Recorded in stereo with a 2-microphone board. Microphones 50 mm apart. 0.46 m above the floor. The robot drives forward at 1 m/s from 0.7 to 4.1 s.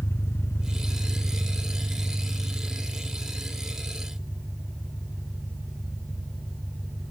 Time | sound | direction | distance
0.0 | an engine running | 65° left (ahead or behind) | 1.2 m